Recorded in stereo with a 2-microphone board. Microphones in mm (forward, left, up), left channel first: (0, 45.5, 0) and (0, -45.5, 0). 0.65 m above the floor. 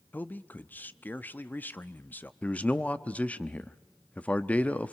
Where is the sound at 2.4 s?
15° left (ahead or behind), 0.7 m.